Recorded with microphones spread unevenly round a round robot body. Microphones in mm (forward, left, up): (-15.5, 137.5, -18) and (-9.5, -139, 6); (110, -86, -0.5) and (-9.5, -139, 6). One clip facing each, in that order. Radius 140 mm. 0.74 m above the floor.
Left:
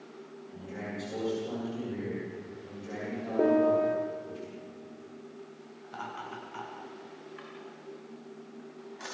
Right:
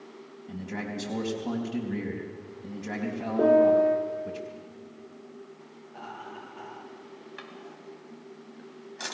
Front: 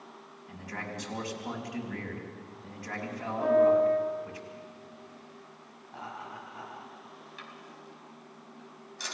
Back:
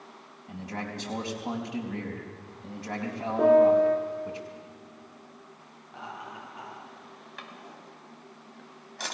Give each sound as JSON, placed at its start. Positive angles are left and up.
{"t": 0.5, "sound": "a man speaking", "azimuth_deg": -90, "distance_m": 4.5}
{"t": 3.4, "sound": "a piano", "azimuth_deg": 175, "distance_m": 2.5}
{"t": 5.8, "sound": "laughter", "azimuth_deg": 95, "distance_m": 8.5}
{"t": 7.4, "sound": "a drawer", "azimuth_deg": -120, "distance_m": 3.5}